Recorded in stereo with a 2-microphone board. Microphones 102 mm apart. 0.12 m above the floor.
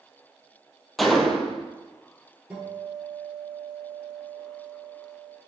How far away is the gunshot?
About 0.9 m.